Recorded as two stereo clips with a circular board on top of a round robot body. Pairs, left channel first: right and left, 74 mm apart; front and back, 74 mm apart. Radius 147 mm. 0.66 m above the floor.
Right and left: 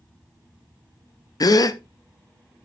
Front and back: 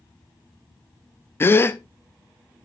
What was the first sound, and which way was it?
A gasp, 60° right.